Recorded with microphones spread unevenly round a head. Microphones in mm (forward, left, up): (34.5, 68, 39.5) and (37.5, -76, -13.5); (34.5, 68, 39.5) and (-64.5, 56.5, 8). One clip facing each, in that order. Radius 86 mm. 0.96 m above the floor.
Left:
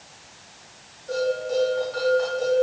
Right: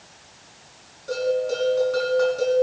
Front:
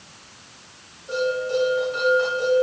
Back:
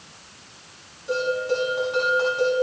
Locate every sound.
1.1 s a bell: 120° right, 6.5 m